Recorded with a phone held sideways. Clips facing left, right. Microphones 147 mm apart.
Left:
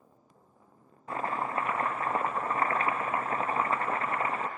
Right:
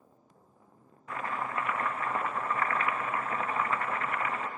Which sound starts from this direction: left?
Chopping, at 1.1 s.